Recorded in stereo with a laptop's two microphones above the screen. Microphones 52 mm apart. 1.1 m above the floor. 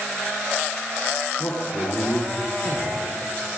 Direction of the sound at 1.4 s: 65° left (ahead or behind).